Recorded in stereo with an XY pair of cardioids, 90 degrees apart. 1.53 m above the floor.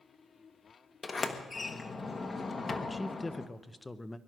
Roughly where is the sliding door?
Ahead left.